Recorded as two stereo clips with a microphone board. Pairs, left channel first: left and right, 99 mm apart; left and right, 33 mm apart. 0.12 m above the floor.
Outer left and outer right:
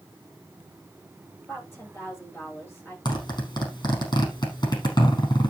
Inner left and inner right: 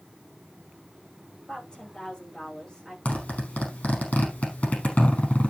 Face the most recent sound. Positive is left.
turn(degrees=40)  # may be behind; listen again after turning